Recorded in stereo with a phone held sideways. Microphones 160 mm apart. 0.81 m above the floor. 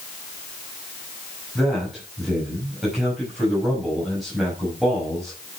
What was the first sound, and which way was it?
A man speaking, centre (ahead or behind).